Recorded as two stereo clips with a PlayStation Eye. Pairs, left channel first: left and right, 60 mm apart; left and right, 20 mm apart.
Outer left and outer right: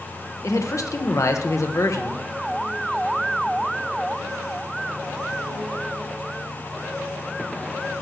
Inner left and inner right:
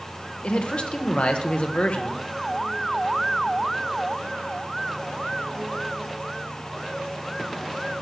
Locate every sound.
0.4 s a man speaking: 65° left (ahead or behind), 1.4 m